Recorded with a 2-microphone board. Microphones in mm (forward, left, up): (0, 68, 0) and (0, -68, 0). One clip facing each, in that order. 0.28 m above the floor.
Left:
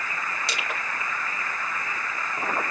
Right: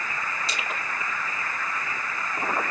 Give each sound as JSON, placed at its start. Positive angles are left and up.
{"t": 0.5, "sound": "crushing", "side_deg": 75, "distance_m": 3.0}